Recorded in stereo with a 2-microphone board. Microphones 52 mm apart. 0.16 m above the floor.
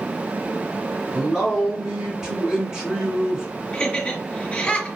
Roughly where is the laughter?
Left.